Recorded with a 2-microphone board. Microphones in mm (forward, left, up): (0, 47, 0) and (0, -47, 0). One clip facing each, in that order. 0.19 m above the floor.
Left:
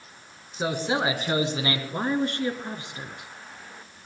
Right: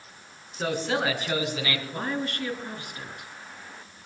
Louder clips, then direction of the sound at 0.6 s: Left 1 dB; 15° left (ahead or behind).